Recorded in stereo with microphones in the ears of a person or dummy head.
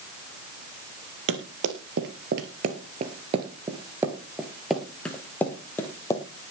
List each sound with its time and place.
1.3 s running footsteps: 60° right (ahead or behind), 2 m; by 6.2 s 20° left (ahead or behind), 2.5 m